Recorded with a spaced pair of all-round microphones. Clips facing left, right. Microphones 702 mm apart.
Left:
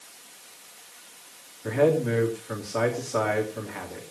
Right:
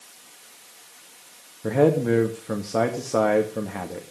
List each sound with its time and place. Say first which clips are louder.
1.6 s a man speaking: right 3 dB; 70° right (ahead or behind), 2 m